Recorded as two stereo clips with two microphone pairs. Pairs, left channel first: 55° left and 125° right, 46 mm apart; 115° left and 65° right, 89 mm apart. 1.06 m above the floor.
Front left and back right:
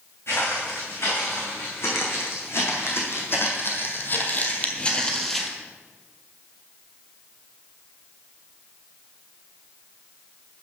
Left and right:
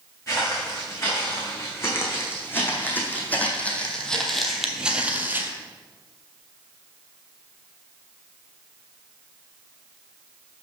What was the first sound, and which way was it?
Footsteps, 60° left.